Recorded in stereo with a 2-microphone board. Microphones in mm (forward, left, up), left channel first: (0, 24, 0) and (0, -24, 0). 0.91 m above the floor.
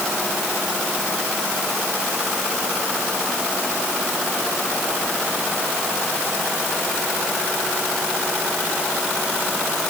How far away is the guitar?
I don't hear a guitar.